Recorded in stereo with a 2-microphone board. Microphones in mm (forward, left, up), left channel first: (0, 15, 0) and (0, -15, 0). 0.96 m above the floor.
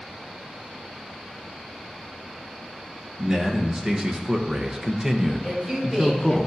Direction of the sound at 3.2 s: 30° right (ahead or behind).